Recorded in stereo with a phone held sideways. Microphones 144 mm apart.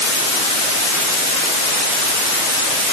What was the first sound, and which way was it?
Only background noise.